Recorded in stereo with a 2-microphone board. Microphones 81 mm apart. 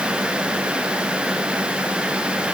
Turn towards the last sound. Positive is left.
No sound to turn to.